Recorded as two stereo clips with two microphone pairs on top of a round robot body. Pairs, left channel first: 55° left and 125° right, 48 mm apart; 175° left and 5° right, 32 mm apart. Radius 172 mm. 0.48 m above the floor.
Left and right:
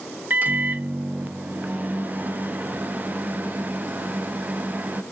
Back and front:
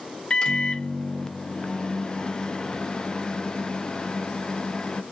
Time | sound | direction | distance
0.3 | a microwave | 145° right | 0.5 m